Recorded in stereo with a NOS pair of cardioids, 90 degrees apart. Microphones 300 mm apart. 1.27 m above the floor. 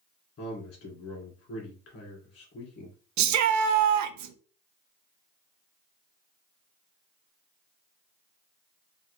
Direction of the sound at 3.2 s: 65° right.